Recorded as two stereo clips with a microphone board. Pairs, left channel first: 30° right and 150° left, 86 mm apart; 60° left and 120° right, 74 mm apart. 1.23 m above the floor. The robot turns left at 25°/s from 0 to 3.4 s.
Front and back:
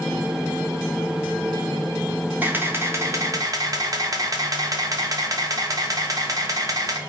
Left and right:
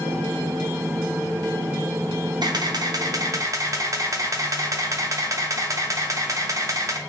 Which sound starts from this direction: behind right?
A camera shutter, at 2.4 s.